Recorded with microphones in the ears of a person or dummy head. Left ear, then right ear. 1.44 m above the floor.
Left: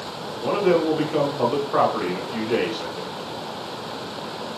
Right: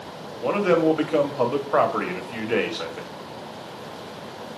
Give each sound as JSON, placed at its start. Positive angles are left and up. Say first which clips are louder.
{"t": 0.4, "sound": "a man speaking", "louder": "even", "side_deg": -25, "distance_m": 0.7}